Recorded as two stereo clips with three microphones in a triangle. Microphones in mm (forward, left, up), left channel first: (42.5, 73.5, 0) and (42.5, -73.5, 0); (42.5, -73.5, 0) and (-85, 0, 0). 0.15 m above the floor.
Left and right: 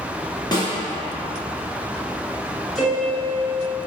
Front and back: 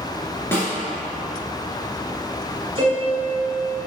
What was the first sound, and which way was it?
A snare drum, 35° left.